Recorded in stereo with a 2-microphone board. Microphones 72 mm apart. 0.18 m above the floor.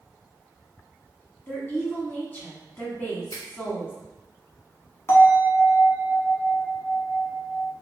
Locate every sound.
1.5 s a woman speaking: 25° left (ahead or behind), 1.2 m
3.3 s a finger snap: 50° left (ahead or behind), 1.3 m
5.1 s a bell: 35° left (ahead or behind), 1.1 m